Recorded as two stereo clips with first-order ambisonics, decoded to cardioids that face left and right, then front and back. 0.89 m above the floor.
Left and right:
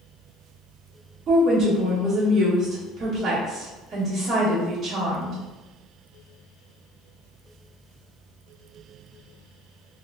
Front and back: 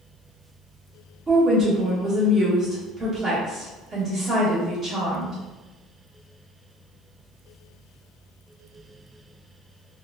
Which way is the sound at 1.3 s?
140° right.